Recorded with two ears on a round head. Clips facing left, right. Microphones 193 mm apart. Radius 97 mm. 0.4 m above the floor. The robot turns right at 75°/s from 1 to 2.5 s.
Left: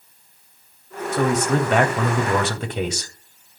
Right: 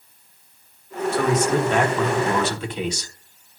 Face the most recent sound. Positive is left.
turn(degrees=125)